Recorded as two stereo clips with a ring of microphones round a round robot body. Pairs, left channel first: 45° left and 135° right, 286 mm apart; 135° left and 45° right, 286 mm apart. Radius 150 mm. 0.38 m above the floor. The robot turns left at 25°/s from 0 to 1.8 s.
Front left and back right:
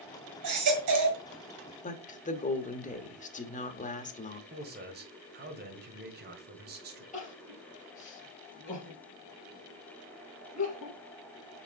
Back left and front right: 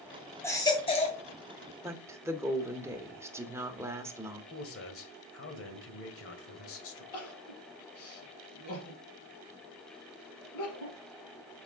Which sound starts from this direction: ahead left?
A woman speaking, at 1.8 s.